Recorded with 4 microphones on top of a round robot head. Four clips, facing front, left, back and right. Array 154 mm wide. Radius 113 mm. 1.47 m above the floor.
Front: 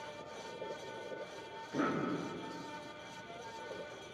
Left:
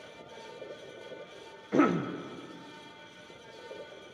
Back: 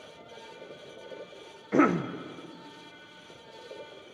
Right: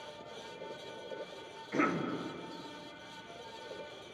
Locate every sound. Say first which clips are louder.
1.7 s a cough: left 7 dB, back 11 dB; 150° left, 1.1 m